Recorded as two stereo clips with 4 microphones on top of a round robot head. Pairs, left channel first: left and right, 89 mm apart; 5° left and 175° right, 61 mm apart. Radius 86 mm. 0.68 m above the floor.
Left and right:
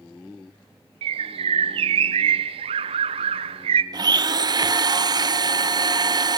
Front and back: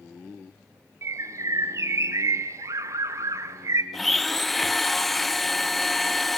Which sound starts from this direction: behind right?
A bird, at 1.0 s.